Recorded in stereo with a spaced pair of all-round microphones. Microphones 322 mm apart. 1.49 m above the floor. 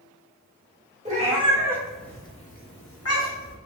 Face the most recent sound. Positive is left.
turn(degrees=60)  # may be behind; listen again after turning